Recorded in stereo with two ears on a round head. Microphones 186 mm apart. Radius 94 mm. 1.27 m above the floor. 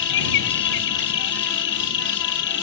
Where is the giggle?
No giggle in this recording.